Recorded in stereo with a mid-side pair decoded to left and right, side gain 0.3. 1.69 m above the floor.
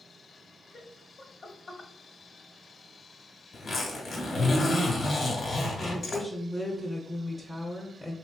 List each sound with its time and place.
0.7 s laughter: 50° left, 1.1 m
3.5 s a zipper: 55° left, 1.5 m
5.8 s a woman speaking: 10° left, 0.8 m